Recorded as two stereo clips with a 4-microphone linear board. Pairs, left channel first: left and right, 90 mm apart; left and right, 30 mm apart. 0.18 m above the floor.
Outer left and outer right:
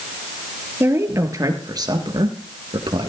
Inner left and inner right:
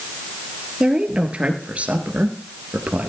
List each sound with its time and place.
0.8 s a woman speaking: 30° right (ahead or behind), 3 m; by 3.1 s 70° right (ahead or behind), 3 m